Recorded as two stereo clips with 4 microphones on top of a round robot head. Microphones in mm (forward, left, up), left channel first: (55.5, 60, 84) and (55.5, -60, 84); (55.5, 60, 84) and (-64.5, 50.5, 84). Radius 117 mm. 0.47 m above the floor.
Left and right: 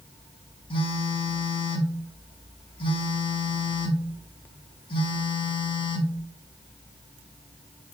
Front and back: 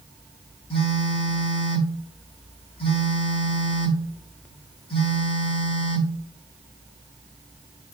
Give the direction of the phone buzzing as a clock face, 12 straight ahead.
10 o'clock.